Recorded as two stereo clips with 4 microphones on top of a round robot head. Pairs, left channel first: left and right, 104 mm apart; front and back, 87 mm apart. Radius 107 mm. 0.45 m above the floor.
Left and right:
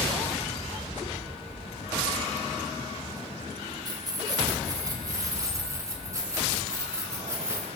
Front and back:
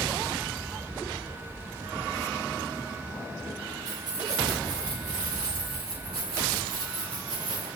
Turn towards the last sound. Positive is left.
turn(degrees=-155)